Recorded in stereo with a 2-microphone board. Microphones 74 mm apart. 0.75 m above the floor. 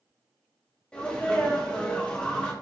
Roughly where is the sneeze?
Centre.